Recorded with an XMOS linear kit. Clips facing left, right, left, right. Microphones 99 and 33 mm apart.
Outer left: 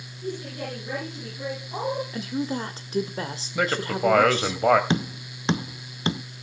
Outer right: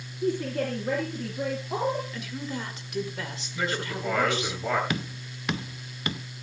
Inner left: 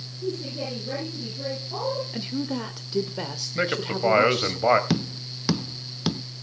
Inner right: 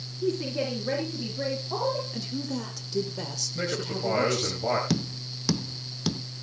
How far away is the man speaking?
About 2.5 m.